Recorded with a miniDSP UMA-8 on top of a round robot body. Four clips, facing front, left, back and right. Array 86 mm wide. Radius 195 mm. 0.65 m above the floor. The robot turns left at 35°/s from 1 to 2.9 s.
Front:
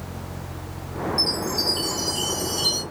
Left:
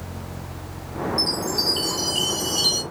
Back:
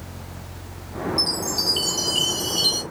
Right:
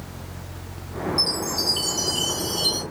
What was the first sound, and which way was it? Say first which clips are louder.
A chime: left 2 dB, front 2 dB; 170° right.